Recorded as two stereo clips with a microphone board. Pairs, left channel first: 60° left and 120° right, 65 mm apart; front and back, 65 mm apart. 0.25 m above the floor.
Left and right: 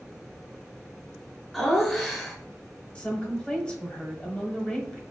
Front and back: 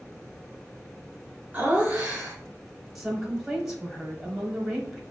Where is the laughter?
140° left, 1.2 m.